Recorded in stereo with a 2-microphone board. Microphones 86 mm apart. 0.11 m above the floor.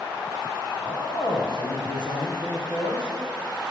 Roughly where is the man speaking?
Left.